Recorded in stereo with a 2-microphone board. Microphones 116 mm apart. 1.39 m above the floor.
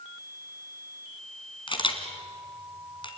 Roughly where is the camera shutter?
Left.